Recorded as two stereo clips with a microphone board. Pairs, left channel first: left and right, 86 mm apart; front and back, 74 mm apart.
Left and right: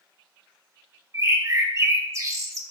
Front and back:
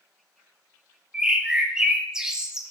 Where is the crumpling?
I don't hear crumpling.